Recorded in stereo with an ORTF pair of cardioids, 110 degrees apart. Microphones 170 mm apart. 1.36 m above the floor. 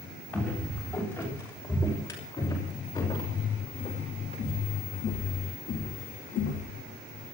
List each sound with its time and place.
0.3 s footsteps: 10° left, 8.5 m; by 6.7 s 75° left, 4.5 m